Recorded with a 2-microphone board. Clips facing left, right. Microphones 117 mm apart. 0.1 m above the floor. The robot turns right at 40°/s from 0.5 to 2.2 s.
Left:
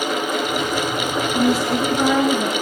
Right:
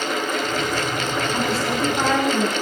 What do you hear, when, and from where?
1.3 s a woman speaking: 110° right, 9.5 m; by 2.5 s 75° right, 9.5 m